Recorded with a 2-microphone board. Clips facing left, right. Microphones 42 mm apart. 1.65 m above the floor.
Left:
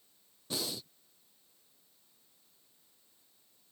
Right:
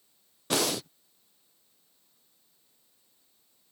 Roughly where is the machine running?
No machine running in this recording.